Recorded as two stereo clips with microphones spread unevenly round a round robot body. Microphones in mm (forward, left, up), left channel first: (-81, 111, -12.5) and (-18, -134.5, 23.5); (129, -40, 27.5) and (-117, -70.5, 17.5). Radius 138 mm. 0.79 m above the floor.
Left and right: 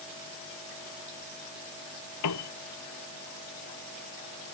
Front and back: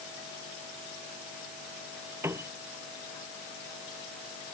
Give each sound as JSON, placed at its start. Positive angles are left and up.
{"t": 2.2, "sound": "a piano", "azimuth_deg": 105}